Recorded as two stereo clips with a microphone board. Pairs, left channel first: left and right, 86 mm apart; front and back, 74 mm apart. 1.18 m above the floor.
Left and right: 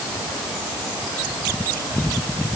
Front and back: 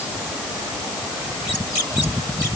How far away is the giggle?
No giggle in this recording.